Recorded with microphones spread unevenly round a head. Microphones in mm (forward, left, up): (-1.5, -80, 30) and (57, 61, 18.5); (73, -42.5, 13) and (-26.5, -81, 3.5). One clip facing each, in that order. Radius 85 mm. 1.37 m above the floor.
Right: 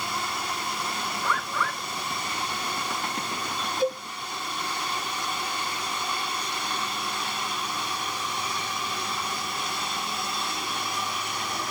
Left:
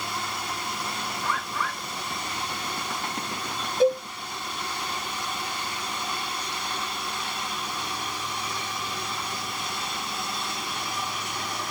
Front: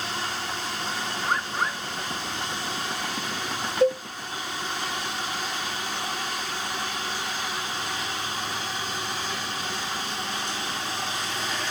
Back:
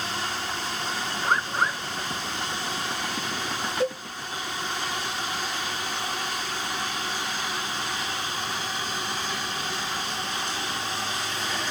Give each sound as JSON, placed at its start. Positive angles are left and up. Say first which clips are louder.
{"t": 1.2, "sound": "a bird", "louder": "right 1 dB, back 3 dB", "azimuth_deg": -135, "distance_m": 1.4}
{"t": 3.8, "sound": "a cowbell", "louder": "left 6 dB, front 7 dB", "azimuth_deg": 120, "distance_m": 1.2}